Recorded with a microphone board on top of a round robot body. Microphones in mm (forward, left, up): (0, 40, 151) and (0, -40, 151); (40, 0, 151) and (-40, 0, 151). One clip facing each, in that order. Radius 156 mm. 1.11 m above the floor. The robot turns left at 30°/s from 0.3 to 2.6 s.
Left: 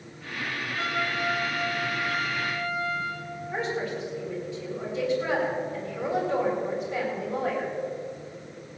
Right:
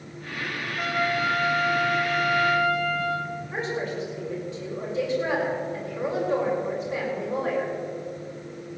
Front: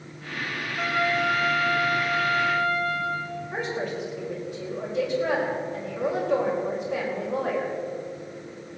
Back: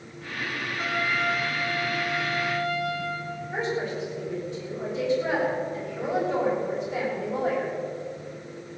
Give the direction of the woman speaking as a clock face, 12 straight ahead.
1 o'clock.